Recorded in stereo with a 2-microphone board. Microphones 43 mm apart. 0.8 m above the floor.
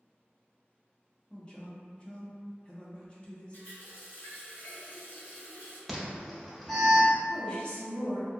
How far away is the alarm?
About 0.7 m.